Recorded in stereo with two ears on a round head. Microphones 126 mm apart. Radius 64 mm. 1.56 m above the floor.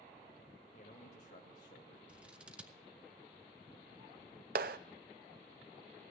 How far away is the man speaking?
About 1.7 m.